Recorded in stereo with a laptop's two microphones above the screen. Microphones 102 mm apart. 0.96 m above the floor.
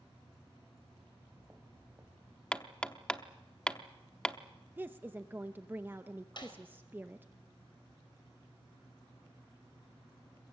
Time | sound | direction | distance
1.1 | footsteps | 5° right (ahead or behind) | 2.5 m
2.5 | hammering | 10° left (ahead or behind) | 0.7 m
4.8 | a woman speaking | 20° right (ahead or behind) | 0.6 m
6.4 | a snare drum | 50° left (ahead or behind) | 4.5 m